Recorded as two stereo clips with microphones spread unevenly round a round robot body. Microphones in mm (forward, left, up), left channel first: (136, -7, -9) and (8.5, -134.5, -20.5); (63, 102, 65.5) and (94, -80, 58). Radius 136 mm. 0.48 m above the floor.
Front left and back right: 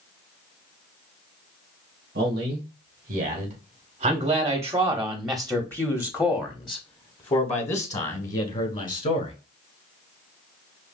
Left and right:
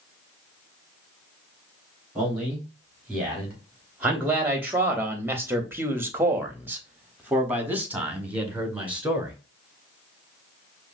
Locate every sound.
2.1 s a man speaking: 165° right, 1.8 m; by 9.3 s straight ahead, 2.5 m